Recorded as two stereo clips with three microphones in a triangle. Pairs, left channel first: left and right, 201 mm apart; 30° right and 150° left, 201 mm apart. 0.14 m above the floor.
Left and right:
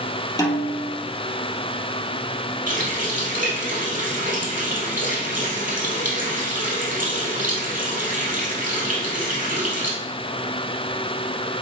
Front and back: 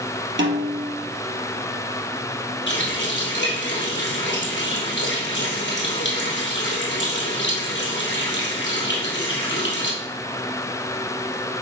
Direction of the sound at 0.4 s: 160° left.